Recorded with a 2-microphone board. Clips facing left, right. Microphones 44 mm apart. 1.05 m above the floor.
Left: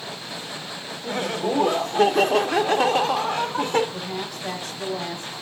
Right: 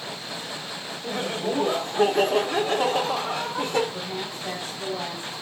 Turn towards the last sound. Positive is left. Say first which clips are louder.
# left 1 dB
turn(degrees=65)  # may be behind; listen again after turning